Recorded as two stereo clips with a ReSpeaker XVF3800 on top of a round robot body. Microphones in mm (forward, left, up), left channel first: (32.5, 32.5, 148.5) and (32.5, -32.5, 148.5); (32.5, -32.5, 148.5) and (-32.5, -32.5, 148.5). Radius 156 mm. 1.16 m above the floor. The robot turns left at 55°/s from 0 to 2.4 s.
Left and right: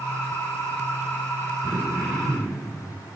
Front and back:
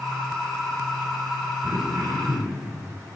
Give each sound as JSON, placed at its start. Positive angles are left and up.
{"t": 1.6, "sound": "throat clearing", "azimuth_deg": -130, "distance_m": 6.0}